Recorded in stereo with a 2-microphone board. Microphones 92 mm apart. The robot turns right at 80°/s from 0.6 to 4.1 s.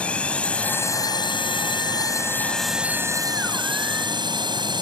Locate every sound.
0.0 s a drone: 15° left; by 4.8 s 65° right